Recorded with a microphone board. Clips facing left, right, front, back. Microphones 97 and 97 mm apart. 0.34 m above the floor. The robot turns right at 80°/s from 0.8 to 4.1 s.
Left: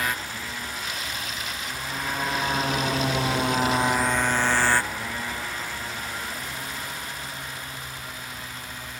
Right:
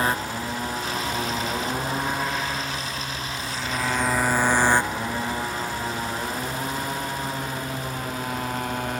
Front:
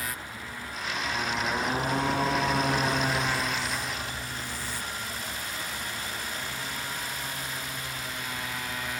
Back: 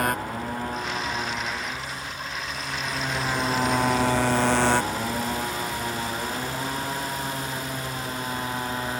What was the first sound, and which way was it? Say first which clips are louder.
A motorcycle: right 5 dB, back 11 dB; 145° right.